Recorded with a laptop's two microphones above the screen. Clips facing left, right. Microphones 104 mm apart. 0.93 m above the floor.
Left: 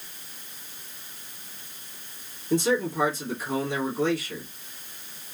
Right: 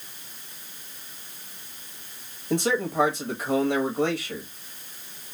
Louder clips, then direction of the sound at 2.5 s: Left 1 dB; 65° right (ahead or behind).